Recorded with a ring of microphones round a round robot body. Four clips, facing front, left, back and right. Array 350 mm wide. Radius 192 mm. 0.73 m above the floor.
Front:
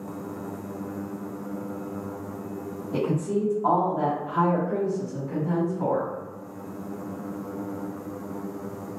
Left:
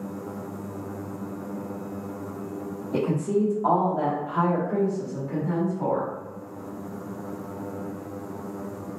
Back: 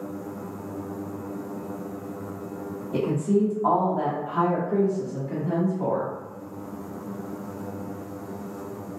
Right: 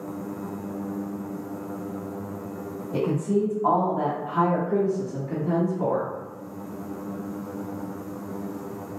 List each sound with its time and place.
2.9 s a woman speaking: 100° left, 1.2 m; by 6.1 s 90° right, 1.5 m